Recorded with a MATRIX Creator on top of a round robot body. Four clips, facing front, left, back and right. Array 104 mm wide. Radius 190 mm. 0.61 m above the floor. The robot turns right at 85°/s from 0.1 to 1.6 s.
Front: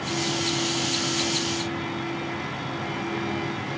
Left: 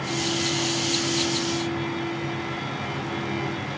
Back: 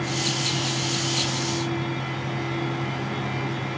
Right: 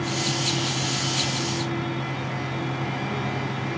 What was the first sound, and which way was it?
Only background noise.